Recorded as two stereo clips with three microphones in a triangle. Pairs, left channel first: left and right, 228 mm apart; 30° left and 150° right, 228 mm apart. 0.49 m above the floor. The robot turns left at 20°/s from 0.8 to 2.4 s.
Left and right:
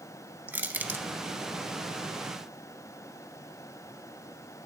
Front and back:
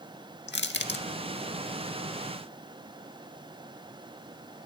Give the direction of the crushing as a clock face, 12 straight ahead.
12 o'clock.